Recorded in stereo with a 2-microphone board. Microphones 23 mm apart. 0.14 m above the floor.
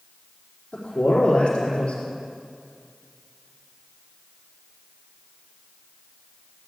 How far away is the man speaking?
About 5.5 m.